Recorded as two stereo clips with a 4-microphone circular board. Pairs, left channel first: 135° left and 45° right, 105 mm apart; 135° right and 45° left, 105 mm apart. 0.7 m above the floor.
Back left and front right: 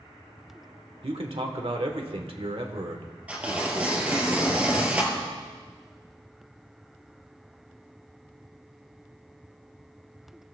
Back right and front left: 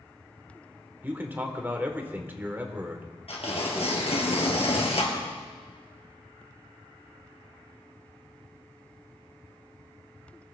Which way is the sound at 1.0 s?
25° right.